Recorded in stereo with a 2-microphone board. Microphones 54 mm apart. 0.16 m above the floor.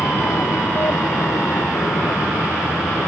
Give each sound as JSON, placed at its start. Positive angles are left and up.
{"t": 0.0, "sound": "an aircraft", "side_deg": 75}